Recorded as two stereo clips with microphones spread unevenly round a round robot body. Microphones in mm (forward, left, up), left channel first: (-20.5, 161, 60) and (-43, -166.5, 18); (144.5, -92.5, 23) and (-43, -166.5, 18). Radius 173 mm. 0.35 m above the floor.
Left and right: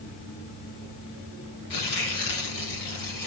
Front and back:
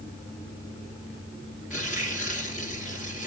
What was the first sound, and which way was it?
Tearing paper, 115° left.